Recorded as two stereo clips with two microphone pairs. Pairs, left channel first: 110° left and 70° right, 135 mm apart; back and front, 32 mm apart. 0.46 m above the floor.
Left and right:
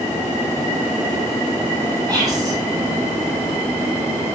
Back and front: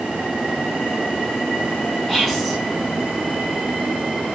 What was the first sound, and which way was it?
Whispering, 105° right.